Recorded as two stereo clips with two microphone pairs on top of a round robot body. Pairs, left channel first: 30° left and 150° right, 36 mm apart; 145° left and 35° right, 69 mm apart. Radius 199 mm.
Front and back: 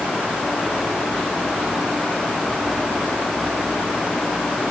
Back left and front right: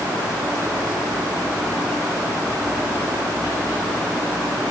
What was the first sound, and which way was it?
Only background noise.